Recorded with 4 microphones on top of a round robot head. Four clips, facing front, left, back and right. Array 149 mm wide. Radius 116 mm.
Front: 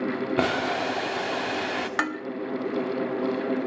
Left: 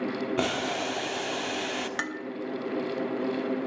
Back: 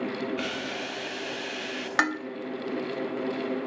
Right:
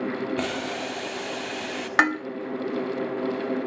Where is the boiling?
15° left, 1.3 m.